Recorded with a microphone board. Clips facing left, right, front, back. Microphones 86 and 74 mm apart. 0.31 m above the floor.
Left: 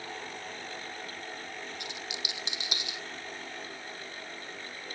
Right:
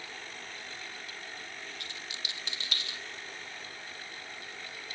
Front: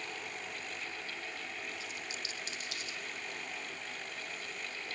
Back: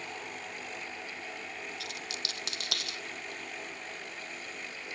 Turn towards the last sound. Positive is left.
turn(degrees=160)